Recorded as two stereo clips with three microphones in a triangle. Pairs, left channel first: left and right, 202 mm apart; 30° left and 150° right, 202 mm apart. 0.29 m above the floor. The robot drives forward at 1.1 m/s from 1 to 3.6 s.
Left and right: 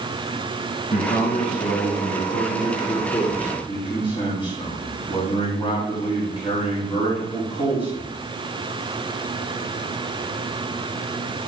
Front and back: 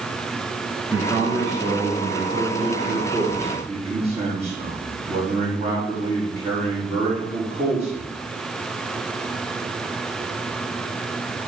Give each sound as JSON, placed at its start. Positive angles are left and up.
{"t": 0.9, "sound": "a man speaking", "azimuth_deg": 125, "distance_m": 3.5}